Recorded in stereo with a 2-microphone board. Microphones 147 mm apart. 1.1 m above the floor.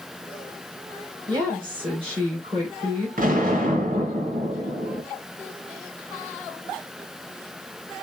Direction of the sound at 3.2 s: 75° right (ahead or behind).